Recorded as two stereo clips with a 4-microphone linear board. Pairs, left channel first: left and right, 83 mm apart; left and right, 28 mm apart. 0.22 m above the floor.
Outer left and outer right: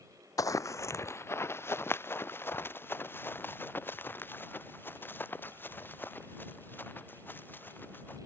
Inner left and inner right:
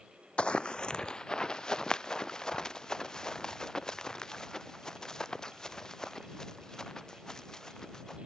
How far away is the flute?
I don't hear a flute.